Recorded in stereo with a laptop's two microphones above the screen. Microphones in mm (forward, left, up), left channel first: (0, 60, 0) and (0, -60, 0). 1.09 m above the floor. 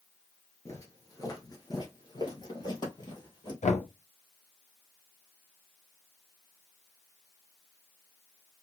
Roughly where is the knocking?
Left.